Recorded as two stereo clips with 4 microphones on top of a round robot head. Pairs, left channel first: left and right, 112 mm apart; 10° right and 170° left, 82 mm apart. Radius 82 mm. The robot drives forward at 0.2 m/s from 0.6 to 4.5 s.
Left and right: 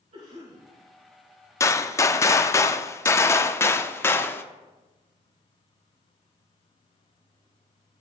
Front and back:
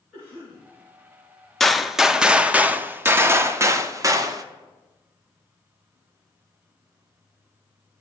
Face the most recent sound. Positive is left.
turn(degrees=155)